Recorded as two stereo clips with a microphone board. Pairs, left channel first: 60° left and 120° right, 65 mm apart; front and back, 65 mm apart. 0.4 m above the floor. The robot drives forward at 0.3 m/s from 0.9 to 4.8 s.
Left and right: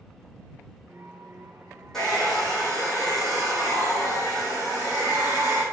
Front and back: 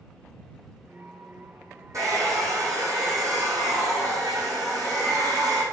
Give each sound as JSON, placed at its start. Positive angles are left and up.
{"t": 1.9, "sound": "a hair dryer", "azimuth_deg": 145, "distance_m": 3.5}